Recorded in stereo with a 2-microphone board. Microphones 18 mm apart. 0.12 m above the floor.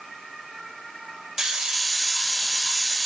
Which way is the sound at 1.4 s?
40° right (ahead or behind).